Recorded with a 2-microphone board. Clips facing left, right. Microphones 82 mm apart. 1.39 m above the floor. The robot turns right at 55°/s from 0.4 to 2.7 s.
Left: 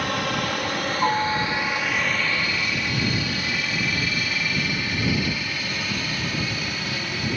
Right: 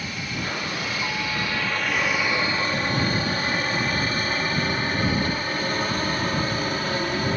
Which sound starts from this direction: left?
A helicopter, at 0.0 s.